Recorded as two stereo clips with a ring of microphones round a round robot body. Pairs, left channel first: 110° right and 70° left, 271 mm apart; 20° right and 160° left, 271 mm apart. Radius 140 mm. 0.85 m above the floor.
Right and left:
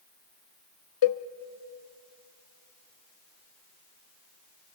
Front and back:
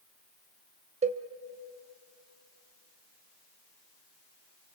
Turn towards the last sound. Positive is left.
turn(degrees=-135)